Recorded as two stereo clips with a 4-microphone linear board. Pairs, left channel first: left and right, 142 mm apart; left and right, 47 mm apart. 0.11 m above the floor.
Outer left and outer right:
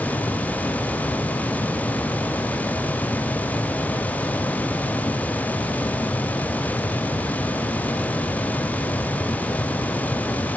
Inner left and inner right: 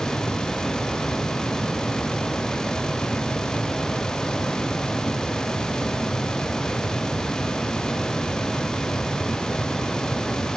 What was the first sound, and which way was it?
Only background noise.